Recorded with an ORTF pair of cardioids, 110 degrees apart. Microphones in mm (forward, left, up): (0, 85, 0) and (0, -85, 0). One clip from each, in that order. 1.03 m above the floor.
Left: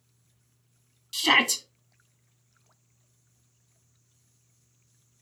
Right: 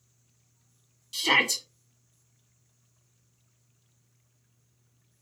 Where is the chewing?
I don't hear chewing.